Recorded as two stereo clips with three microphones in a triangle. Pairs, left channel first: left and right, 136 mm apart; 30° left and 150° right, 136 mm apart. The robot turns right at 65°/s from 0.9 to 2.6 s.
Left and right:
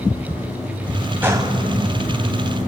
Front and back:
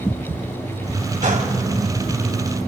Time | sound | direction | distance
1.2 | a gunshot | 165° right | 2.5 m